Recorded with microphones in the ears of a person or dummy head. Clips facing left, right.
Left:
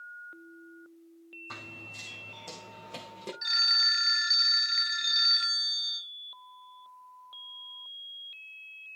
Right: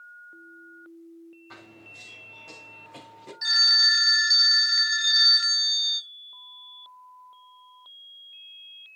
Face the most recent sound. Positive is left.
turn(degrees=-5)  # may be behind; listen again after turning